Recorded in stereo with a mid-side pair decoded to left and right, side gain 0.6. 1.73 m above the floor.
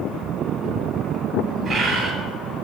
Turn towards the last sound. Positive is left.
turn(degrees=-40)